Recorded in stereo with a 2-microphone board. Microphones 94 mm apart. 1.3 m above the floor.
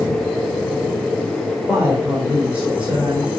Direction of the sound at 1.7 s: 15° right (ahead or behind).